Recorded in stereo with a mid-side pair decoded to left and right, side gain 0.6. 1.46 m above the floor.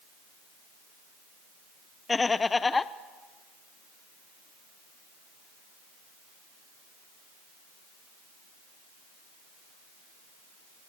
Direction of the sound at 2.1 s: 20° left.